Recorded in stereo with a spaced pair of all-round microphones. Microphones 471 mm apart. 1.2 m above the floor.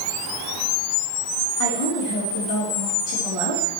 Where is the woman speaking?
80° left, 3.5 m.